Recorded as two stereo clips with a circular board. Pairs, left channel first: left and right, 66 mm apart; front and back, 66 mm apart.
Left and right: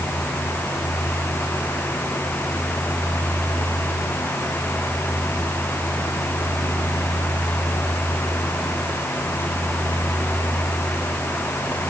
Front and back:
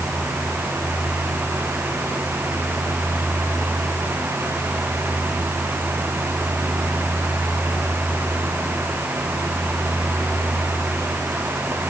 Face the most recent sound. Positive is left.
No sound to turn to.